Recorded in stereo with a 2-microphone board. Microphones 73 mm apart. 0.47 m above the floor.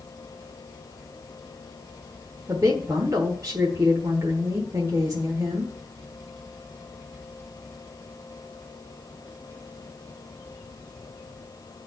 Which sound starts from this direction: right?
A woman speaking, at 2.5 s.